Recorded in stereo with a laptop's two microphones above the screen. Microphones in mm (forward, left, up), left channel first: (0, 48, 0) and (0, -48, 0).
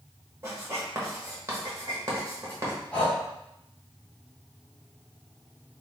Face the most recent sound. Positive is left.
turn(degrees=15)  # may be behind; listen again after turning